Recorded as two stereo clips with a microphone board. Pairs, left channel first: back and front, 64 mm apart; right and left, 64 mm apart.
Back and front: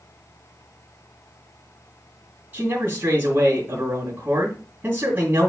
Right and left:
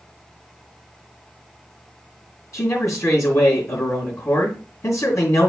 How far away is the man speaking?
About 2.5 m.